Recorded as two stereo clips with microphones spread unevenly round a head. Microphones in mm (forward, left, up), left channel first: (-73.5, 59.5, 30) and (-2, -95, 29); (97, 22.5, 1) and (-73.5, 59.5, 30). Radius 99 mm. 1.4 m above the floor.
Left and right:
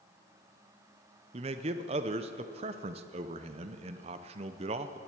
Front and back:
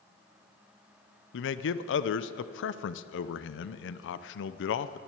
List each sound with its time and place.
1.3 s a man speaking: 5° right, 0.6 m